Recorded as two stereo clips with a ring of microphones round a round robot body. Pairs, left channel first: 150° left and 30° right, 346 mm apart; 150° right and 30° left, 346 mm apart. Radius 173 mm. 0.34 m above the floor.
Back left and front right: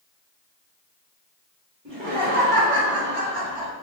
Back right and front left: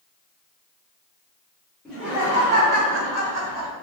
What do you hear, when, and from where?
1.9 s laughter: 65° right, 1.6 m; by 3.7 s 35° left, 1.9 m